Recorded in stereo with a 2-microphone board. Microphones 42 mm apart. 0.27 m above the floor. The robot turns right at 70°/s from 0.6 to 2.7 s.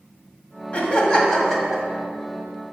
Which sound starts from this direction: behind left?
Laughter, at 0.7 s.